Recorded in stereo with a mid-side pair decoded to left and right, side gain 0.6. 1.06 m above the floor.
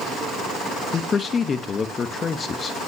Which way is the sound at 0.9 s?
30° left.